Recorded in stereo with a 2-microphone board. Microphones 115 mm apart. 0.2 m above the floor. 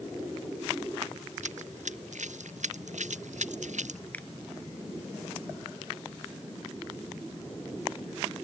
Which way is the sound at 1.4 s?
90° right.